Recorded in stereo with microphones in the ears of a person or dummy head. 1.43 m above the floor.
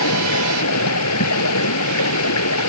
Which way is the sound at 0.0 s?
85° left.